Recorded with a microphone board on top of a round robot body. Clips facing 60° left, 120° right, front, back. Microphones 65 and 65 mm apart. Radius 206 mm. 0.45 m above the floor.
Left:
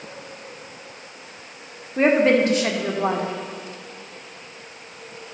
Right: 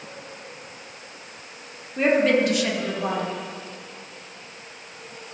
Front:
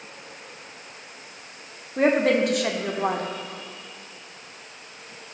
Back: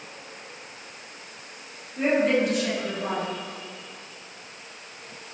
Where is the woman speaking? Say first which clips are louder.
Left 2 dB, front 2 dB; 10° left, 1.7 m.